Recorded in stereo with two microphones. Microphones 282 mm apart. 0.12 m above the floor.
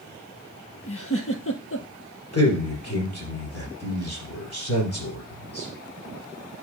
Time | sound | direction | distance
0.9 | a giggle | 50° left (ahead or behind) | 0.8 m
2.3 | a man speaking | 50° left (ahead or behind) | 3 m